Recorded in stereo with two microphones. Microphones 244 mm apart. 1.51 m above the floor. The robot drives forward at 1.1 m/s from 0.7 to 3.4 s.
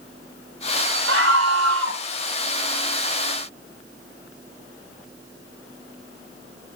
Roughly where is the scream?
Right.